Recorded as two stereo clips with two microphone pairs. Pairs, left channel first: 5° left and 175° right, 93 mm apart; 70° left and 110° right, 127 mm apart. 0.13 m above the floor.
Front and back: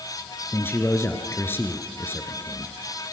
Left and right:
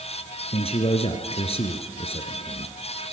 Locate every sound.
0.5 s a man speaking: 65° left, 1.6 m